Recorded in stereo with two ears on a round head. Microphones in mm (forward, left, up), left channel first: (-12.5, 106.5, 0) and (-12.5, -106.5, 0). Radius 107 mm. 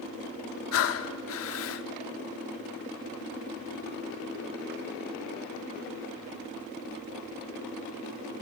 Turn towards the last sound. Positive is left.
turn(degrees=65)  # may be behind; listen again after turning